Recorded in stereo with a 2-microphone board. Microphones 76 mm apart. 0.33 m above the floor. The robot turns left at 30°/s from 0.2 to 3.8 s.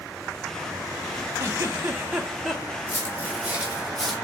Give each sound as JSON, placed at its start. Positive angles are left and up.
{"t": 1.4, "sound": "a giggle", "azimuth_deg": -140, "distance_m": 0.5}
{"t": 2.9, "sound": "footsteps", "side_deg": -25, "distance_m": 1.0}